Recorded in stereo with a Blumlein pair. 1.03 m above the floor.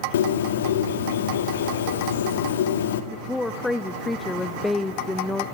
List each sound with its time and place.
0.1 s a bird: 60° left, 2 m
3.1 s a woman speaking: 10° left, 0.9 m